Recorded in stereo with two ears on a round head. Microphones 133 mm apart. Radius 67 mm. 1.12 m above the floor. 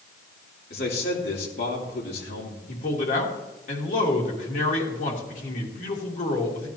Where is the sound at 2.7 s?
60° left (ahead or behind), 3 m.